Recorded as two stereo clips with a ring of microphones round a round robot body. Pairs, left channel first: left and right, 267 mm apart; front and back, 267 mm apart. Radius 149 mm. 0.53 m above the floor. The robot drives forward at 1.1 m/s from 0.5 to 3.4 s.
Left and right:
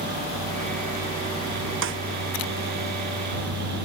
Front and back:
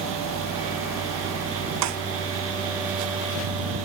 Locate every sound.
1.8 s a snare drum: 140° right